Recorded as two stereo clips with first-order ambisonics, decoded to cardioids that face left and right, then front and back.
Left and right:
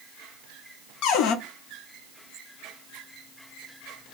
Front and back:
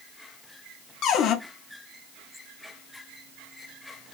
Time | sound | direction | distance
1.0 | a cupboard door | 50° left | 0.6 m